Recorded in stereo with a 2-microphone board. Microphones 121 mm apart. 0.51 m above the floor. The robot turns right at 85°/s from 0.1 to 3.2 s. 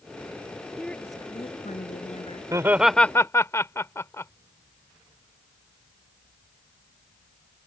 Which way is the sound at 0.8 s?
5° right.